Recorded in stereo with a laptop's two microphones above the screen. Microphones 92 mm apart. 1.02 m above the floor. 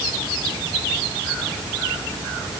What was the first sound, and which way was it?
Only background noise.